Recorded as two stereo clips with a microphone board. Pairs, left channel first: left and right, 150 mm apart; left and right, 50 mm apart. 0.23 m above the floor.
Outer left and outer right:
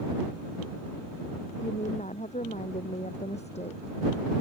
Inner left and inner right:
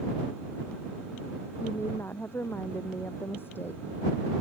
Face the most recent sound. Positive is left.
turn(degrees=45)  # may be behind; listen again after turning